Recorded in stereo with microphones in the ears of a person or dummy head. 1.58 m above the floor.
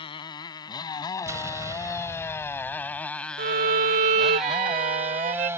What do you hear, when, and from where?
0.0 s a motorcycle: 25° left (ahead or behind); by 5.6 s 15° right (ahead or behind)
1.3 s an explosion: 15° right (ahead or behind)
3.4 s a violin: 35° right (ahead or behind)